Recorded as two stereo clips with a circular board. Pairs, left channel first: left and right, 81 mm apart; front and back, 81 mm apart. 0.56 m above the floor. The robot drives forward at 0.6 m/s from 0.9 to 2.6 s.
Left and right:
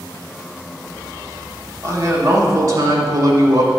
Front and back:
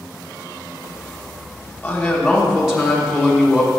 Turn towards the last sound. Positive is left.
turn(degrees=-95)